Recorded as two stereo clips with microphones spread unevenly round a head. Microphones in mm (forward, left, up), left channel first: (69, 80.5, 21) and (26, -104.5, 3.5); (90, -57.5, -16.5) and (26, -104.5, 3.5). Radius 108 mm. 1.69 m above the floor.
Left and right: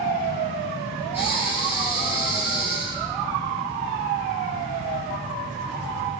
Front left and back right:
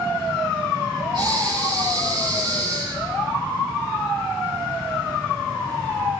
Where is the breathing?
175° left, 6.5 m.